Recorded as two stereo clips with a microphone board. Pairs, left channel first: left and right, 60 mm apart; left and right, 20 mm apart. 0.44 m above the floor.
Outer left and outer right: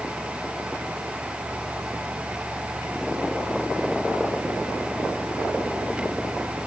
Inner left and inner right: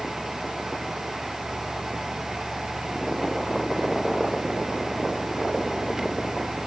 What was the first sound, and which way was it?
Only background noise.